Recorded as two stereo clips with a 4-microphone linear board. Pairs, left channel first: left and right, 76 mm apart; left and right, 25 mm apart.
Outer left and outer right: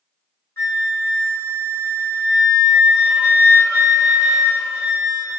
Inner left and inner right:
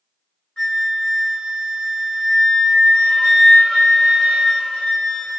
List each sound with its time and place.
0.6 s a flute: 35° left (ahead or behind), 0.8 m